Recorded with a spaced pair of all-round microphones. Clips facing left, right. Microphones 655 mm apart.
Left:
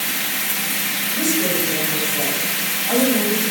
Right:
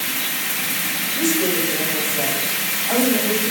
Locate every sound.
1.1 s a woman speaking: 65° left (ahead or behind), 6.5 m; by 3.5 s 50° left (ahead or behind), 9.5 m